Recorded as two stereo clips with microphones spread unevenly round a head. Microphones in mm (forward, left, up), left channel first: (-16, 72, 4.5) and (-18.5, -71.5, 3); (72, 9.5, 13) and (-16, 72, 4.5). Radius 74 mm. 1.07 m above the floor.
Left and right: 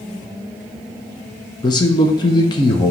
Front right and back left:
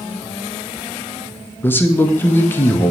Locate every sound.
1.6 s a man speaking: 35° left, 0.8 m